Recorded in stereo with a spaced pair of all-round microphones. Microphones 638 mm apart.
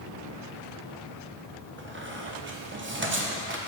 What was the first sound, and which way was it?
A squeak, 20° right (ahead or behind).